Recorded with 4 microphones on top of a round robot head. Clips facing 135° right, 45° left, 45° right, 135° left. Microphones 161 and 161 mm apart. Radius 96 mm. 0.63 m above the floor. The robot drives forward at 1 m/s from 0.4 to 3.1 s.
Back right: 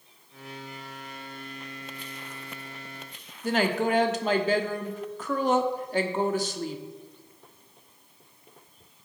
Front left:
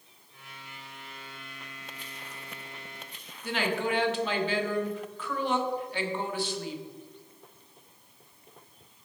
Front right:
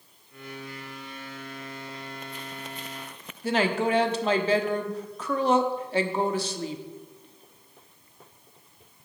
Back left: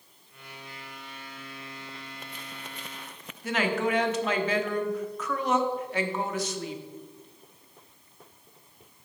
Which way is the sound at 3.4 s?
95° right.